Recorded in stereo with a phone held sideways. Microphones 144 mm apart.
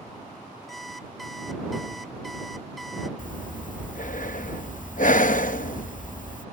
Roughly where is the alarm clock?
Centre.